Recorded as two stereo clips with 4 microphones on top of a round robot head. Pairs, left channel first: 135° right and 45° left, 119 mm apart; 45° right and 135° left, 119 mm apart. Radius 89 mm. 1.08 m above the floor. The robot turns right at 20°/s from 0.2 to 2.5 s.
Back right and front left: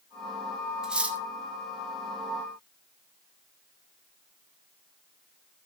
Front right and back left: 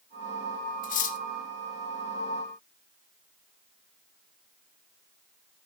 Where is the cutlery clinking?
35° right, 1.2 m; by 1.2 s 30° right, 1.2 m.